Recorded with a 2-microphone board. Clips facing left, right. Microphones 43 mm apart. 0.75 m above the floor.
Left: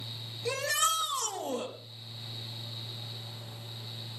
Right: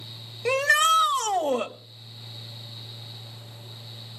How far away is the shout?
About 1.1 m.